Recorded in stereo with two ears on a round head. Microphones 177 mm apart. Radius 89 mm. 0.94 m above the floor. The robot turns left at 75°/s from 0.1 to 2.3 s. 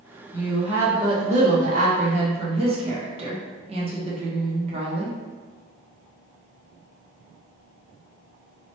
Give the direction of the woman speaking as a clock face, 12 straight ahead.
11 o'clock.